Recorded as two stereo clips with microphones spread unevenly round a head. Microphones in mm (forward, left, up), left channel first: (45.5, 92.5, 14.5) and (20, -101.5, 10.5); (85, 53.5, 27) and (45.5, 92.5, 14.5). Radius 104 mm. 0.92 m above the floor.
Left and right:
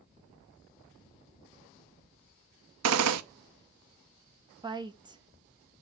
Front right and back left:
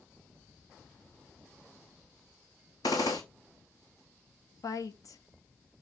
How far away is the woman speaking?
About 1.1 m.